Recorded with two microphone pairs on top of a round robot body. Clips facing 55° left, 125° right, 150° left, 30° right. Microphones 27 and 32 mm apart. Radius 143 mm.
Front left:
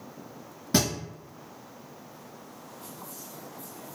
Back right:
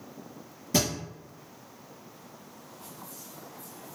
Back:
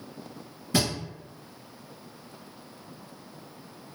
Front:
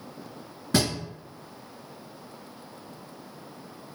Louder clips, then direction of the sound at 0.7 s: Front left 1 dB, front 2 dB; 5° left.